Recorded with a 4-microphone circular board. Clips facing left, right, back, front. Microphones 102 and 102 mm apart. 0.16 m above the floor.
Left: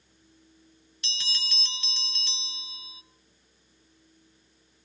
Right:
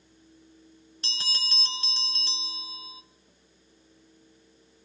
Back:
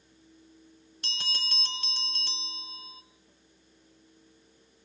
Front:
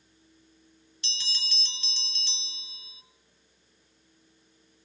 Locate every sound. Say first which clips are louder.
1.0 s a bell: right 1 dB, back 4 dB; 140° right, 0.7 m